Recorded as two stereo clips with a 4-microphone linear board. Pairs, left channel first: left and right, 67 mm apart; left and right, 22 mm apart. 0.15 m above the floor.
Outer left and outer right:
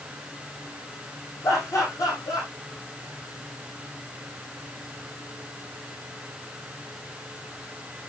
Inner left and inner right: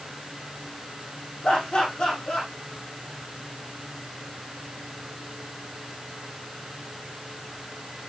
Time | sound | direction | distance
1.4 | laughter | 55° left (ahead or behind) | 6 m